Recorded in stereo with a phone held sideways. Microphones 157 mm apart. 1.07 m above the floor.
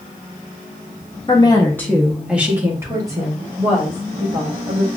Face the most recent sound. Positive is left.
turn(degrees=-35)  # may be behind; listen again after turning